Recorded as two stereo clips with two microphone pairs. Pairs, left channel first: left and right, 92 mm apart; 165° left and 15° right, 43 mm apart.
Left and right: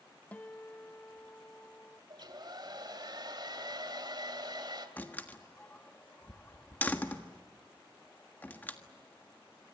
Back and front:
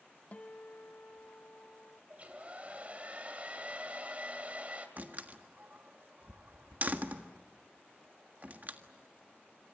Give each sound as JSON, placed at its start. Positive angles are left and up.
{"t": 0.3, "sound": "a guitar", "azimuth_deg": 155, "distance_m": 0.9}
{"t": 2.1, "sound": "a hair dryer", "azimuth_deg": -70, "distance_m": 2.5}
{"t": 5.0, "sound": "a door slam", "azimuth_deg": 25, "distance_m": 1.5}